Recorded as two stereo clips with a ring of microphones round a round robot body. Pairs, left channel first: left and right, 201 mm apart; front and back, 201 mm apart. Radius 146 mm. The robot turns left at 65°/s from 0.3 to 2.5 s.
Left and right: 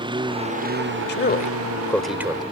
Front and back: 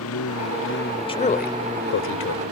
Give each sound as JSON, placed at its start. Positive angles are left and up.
{"t": 0.0, "sound": "a lawn mower", "azimuth_deg": -25}
{"t": 1.1, "sound": "a man speaking", "azimuth_deg": 65}